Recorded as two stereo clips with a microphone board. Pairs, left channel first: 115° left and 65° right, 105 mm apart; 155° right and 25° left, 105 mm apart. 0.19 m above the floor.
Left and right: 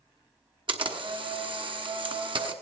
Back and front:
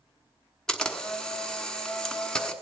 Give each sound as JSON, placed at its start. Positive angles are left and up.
{"t": 0.7, "sound": "a camera shutter", "azimuth_deg": -75, "distance_m": 1.1}